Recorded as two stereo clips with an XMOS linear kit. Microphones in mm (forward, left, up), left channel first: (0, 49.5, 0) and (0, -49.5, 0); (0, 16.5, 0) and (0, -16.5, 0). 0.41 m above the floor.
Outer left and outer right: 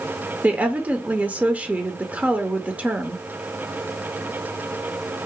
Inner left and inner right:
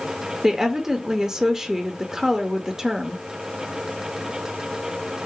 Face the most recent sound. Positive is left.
turn(degrees=-15)  # may be behind; listen again after turning